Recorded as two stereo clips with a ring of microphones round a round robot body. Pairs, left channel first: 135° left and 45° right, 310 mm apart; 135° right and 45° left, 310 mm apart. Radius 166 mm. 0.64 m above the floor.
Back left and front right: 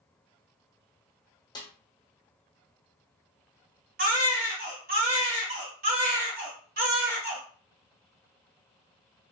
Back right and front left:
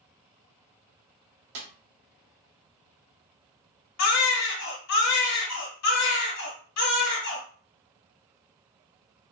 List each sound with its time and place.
1.6 s a snare drum: 60° left, 1.1 m
4.0 s a baby crying: 105° right, 1.4 m